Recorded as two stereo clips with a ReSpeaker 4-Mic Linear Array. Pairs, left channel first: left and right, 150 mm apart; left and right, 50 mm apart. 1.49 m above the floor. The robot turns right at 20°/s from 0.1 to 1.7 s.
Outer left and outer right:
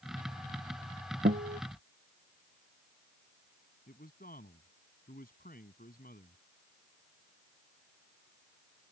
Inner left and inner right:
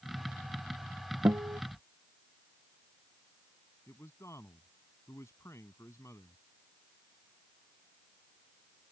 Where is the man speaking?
75° left (ahead or behind).